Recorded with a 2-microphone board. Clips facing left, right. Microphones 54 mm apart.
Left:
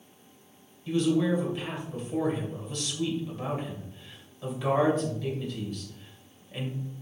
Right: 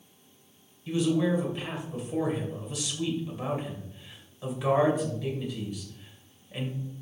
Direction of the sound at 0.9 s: 10° right (ahead or behind).